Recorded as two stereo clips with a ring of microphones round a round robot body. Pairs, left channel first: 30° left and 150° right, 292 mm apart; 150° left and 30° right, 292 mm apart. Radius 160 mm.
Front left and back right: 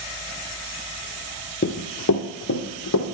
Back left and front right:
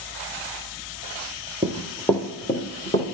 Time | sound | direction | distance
1.6 | running footsteps | 40° left | 0.9 m